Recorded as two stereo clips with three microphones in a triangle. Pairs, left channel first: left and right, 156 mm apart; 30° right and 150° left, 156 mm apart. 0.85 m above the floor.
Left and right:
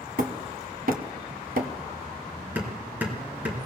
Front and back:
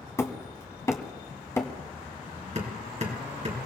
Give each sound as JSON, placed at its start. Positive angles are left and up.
{"t": 0.2, "sound": "hammering", "azimuth_deg": -100, "distance_m": 1.5}
{"t": 2.5, "sound": "hammering", "azimuth_deg": -170, "distance_m": 3.5}